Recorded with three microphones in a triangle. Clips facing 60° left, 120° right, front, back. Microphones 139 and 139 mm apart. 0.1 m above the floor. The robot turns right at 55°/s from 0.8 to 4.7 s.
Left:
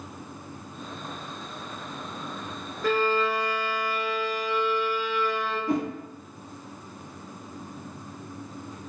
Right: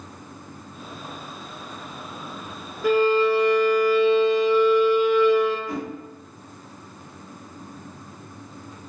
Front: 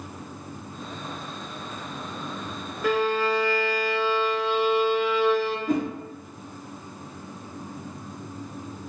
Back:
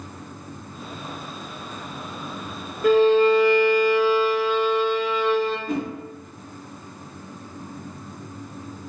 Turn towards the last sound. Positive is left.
turn(degrees=40)